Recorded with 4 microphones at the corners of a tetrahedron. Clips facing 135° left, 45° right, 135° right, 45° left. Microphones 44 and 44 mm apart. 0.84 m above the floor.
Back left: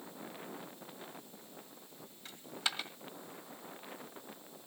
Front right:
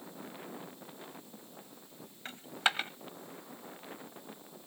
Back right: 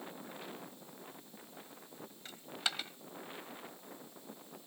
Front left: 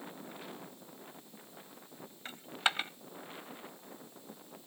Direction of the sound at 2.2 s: 5° right.